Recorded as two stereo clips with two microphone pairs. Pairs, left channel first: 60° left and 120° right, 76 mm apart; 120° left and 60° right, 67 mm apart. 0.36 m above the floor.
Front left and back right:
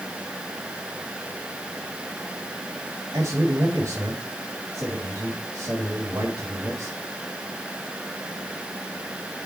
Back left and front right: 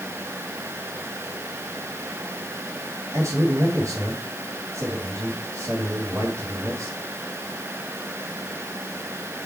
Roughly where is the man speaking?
Right.